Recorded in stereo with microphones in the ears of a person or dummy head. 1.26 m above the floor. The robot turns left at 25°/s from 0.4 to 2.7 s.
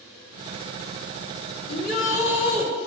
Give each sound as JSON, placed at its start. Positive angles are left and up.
{"t": 1.7, "sound": "a shout", "side_deg": 50, "distance_m": 2.5}